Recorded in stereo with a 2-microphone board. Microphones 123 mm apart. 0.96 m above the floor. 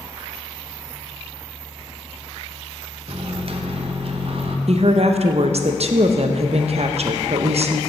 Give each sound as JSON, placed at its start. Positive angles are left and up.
{"t": 3.1, "sound": "a microwave", "side_deg": -50, "distance_m": 0.7}
{"t": 4.7, "sound": "a woman speaking", "side_deg": -60, "distance_m": 0.6}